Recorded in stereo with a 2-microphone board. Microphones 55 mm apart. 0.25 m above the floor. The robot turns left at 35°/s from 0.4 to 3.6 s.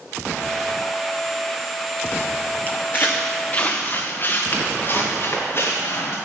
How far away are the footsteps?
About 1.0 m.